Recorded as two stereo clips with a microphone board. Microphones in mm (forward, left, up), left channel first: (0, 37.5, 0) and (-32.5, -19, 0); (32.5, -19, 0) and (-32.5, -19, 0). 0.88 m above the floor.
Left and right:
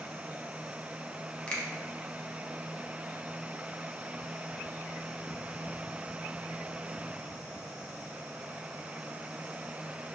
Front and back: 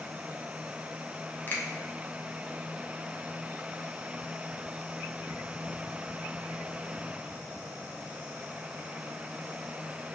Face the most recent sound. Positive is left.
turn(degrees=0)